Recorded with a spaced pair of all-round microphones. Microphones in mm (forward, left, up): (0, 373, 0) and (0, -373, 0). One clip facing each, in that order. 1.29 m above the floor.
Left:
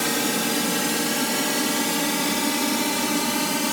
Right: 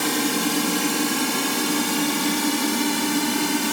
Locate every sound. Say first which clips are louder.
0.0 s a drone: right 2 dB; 20° left (ahead or behind); by 3.7 s 15° left (ahead or behind)